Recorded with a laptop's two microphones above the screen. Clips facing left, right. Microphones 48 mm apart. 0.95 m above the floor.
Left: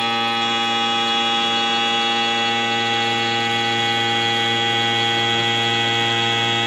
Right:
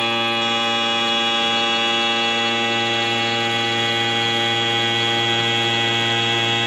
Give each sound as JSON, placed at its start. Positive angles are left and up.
{"t": 0.0, "sound": "a machine running", "side_deg": -30, "distance_m": 1.0}